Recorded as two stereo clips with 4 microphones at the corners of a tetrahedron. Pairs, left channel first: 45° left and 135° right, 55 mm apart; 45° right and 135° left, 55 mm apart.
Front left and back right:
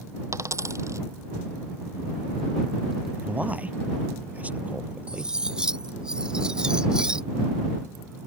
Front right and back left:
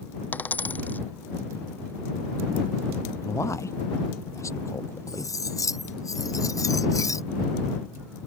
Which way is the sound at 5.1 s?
60° right.